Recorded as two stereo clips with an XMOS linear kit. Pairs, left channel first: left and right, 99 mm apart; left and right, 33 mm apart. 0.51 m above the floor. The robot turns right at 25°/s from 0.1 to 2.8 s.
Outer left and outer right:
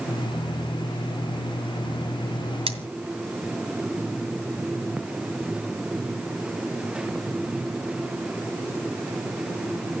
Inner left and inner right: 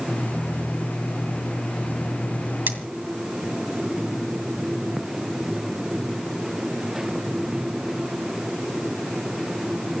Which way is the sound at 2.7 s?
70° right (ahead or behind).